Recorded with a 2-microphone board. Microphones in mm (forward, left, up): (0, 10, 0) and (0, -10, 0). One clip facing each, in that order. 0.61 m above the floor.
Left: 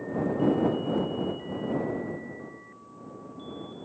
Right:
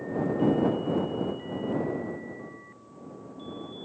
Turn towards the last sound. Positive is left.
No sound to turn to.